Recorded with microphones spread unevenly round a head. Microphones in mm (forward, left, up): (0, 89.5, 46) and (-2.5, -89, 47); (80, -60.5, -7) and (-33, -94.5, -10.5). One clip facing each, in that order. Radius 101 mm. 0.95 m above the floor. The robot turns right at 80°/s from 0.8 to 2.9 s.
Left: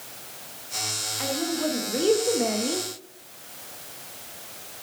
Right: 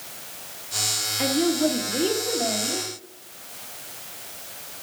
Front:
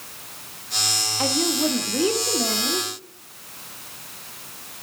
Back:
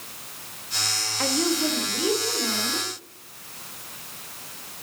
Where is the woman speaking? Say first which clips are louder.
Right 6 dB, front 1 dB; 55° right, 1.4 m; by 2.9 s 85° left, 1.4 m.